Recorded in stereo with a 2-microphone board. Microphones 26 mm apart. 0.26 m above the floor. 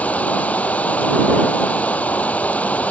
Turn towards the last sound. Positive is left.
turn(degrees=85)